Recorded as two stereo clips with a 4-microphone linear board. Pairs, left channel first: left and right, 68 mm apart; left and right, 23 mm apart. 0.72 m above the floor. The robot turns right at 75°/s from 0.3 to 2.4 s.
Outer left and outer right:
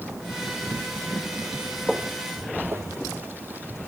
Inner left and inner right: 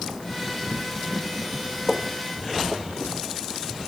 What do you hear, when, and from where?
1.9 s footsteps: 5° right (ahead or behind), 1.1 m; by 3.6 s 30° right (ahead or behind), 1.4 m